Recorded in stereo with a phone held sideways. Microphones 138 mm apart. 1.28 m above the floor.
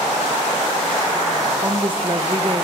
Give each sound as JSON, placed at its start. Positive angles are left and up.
{"t": 1.6, "sound": "a woman speaking", "side_deg": -45, "distance_m": 0.8}